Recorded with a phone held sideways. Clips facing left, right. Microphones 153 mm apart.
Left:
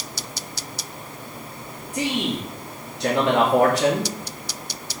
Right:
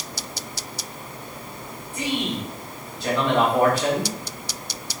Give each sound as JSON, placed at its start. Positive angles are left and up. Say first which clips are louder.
{"t": 1.9, "sound": "a man speaking", "louder": "left 2 dB", "side_deg": 75, "distance_m": 2.5}